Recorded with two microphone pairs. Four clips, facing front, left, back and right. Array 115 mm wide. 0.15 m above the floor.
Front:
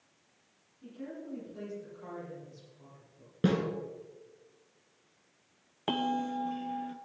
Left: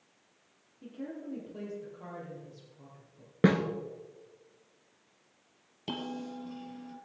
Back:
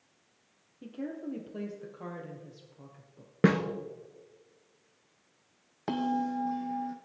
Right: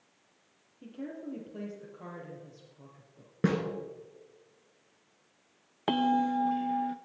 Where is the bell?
75° right, 0.8 m.